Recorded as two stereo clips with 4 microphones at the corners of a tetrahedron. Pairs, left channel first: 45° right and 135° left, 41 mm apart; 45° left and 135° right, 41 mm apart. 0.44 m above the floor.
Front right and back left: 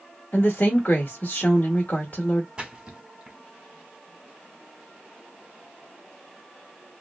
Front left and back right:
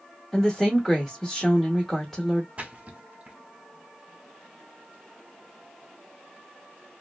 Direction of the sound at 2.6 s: 170° right.